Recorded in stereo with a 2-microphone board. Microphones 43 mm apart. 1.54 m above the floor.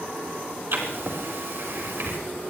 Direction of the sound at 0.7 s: 65° right (ahead or behind).